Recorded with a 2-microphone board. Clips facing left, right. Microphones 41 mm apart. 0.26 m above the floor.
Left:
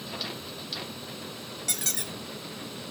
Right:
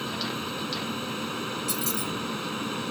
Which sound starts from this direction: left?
A squeak, at 1.7 s.